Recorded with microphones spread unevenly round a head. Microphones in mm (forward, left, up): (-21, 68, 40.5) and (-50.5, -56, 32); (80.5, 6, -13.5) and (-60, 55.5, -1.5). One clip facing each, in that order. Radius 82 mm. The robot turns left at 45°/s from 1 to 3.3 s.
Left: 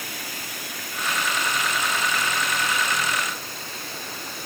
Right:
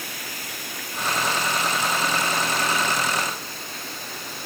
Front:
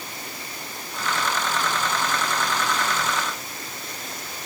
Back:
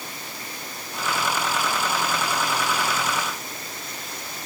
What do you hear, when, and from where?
Only background noise.